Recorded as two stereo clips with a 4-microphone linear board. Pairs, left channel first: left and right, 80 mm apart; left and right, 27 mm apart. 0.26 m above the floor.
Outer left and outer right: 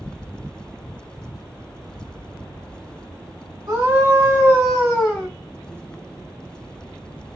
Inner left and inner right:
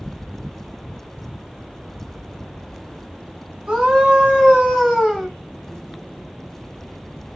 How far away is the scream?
About 1.3 m.